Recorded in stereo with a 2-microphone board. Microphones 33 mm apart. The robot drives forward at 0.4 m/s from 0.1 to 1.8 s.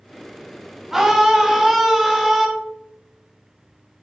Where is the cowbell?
I don't hear a cowbell.